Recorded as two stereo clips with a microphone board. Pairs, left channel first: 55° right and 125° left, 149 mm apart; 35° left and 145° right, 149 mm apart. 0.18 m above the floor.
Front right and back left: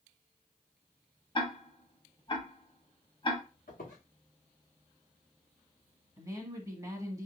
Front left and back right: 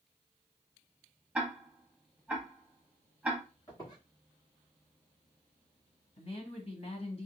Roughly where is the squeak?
Ahead right.